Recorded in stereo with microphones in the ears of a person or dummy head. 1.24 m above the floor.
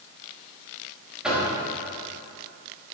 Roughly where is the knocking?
Centre.